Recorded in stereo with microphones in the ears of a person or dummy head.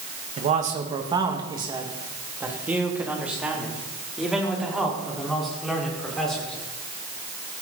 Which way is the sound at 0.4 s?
45° right (ahead or behind).